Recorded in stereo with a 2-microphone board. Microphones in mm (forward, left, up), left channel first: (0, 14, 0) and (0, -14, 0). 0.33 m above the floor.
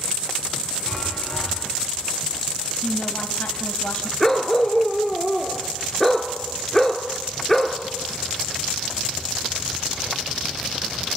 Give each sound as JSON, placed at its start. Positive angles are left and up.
{"t": 0.9, "sound": "a chime", "side_deg": 30, "distance_m": 7.0}
{"t": 2.8, "sound": "a woman speaking", "side_deg": 55, "distance_m": 1.6}
{"t": 4.2, "sound": "a dog barking", "side_deg": 10, "distance_m": 1.5}